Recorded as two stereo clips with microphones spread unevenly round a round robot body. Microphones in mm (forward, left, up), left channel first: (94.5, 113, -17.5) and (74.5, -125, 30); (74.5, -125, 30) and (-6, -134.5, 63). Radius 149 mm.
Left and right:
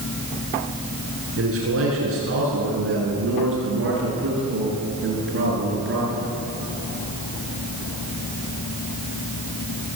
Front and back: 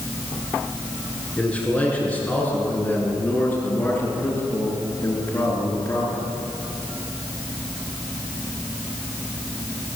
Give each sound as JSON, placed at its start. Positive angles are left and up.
{"t": 1.4, "sound": "a man speaking", "azimuth_deg": -70, "distance_m": 8.5}